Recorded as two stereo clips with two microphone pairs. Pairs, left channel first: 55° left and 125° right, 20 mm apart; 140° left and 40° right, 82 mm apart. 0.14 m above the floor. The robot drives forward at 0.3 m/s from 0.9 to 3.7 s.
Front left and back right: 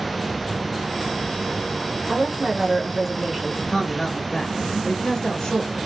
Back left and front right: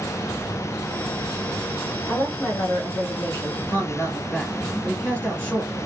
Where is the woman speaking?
170° left, 1.4 m; by 3.6 s 175° left, 1.6 m.